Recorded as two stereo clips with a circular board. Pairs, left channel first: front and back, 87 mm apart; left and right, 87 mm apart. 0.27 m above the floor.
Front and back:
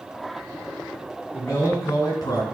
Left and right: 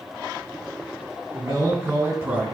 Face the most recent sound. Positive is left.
turn(degrees=-25)